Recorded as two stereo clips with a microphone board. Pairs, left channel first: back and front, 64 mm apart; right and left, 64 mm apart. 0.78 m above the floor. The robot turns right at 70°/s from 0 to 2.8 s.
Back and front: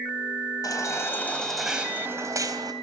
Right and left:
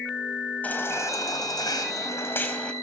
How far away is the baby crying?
About 3.5 m.